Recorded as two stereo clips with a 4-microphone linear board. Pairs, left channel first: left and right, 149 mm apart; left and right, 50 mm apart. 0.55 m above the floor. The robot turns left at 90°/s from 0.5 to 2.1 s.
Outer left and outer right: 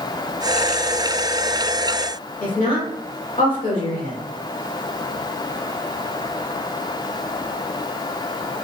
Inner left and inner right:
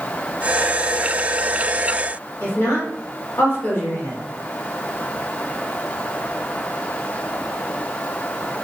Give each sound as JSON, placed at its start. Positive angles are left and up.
{"t": 2.4, "sound": "a woman speaking", "side_deg": 55, "distance_m": 1.7}